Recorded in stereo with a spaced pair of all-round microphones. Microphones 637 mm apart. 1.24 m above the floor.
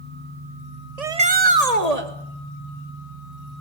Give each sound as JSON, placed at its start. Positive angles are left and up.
{"t": 1.0, "sound": "a shout", "side_deg": -70, "distance_m": 2.0}